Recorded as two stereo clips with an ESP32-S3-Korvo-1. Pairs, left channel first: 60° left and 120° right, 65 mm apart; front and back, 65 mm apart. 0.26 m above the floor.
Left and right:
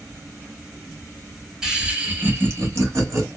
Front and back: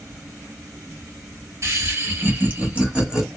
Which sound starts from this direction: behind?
Laughter, at 1.6 s.